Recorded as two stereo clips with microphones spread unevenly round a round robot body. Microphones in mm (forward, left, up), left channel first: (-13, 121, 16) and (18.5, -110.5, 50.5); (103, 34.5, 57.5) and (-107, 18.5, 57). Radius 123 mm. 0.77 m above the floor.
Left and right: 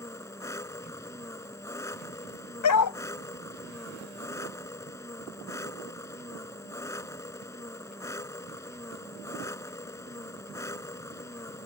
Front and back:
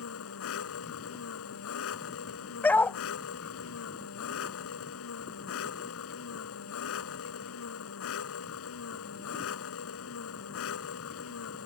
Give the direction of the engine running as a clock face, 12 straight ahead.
11 o'clock.